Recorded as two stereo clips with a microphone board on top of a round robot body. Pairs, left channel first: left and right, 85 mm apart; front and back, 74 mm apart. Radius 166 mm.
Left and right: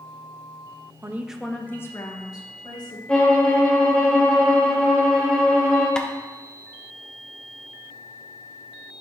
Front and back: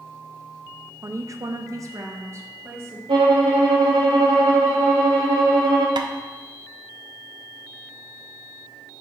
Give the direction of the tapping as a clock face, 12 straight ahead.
6 o'clock.